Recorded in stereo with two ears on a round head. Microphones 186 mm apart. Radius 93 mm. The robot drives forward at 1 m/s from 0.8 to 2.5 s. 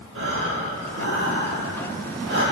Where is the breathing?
70° right (ahead or behind), 6 m; by 2.4 s 60° right (ahead or behind), 6.5 m.